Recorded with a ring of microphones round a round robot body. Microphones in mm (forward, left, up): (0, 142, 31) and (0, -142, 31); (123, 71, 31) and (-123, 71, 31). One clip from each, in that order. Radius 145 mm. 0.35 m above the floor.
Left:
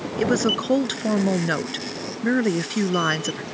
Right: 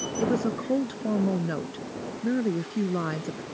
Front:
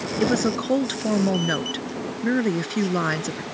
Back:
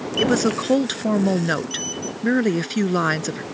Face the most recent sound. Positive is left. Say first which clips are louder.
# left 7 dB, back 3 dB
turn(degrees=110)